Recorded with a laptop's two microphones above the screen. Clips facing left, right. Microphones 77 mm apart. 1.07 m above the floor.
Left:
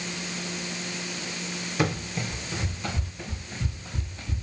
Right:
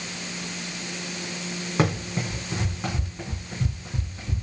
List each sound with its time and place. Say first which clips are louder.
1.8 s running footsteps: right 3 dB; 45° right (ahead or behind), 2.5 m; by 4.4 s 30° right (ahead or behind), 3.5 m